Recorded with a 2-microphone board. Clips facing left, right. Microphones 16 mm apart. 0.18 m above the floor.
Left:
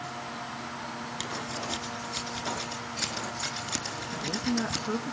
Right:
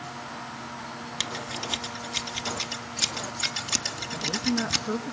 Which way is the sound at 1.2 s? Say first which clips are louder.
Right 4 dB; 25° right (ahead or behind).